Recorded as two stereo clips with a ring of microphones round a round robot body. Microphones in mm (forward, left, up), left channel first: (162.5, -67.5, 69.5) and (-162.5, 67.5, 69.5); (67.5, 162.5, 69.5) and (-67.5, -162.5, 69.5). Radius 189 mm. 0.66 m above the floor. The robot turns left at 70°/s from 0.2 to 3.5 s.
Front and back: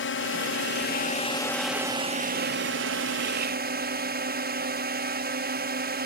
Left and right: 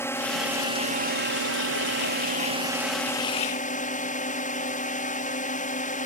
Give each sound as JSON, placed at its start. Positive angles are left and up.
{"t": 0.0, "sound": "a drone", "azimuth_deg": -10}